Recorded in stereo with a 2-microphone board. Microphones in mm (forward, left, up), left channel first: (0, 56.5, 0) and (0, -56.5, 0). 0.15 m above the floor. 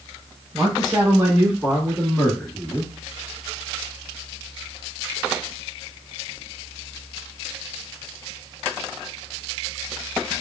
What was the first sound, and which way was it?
A man speaking, 35° right (ahead or behind).